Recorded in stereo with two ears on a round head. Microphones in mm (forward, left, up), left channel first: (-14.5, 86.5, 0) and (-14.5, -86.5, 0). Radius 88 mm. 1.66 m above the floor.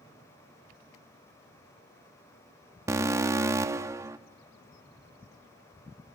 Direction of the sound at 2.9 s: 15° right (ahead or behind).